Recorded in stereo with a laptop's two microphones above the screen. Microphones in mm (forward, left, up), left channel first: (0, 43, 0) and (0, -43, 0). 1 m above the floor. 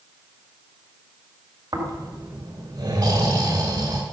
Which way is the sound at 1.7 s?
45° right (ahead or behind).